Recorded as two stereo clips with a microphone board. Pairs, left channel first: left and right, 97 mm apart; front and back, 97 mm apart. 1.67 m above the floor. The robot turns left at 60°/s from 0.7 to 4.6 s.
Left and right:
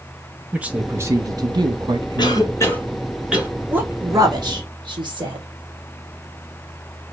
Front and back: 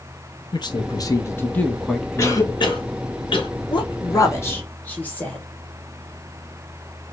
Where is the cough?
60° left, 1.2 m; by 3.5 s 20° right, 1.2 m.